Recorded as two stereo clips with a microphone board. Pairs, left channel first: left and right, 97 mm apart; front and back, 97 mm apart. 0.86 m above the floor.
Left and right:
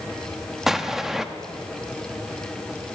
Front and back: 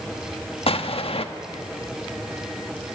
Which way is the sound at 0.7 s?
5° right.